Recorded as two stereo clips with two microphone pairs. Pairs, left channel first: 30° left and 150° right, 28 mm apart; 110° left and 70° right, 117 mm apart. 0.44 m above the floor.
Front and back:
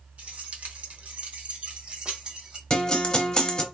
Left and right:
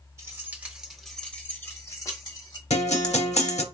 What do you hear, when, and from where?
0.2 s keys jangling: 130° right, 0.9 m; by 2.6 s 160° left, 1.2 m
2.7 s a guitar: 95° left, 0.6 m